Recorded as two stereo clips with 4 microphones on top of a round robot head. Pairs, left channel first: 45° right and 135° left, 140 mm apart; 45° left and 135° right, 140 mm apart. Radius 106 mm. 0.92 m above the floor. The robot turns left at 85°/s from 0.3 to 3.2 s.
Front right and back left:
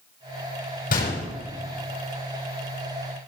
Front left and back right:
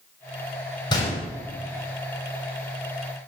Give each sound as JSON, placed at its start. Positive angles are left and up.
{"t": 0.9, "sound": "a gunshot", "azimuth_deg": -15, "distance_m": 6.5}